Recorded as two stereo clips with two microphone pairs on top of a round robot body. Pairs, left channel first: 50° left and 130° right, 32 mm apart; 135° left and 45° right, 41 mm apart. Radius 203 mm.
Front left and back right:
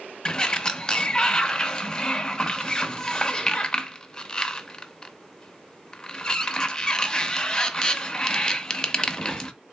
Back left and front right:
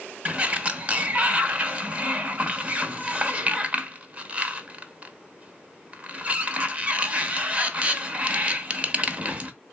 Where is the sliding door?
Straight ahead, 1.0 m.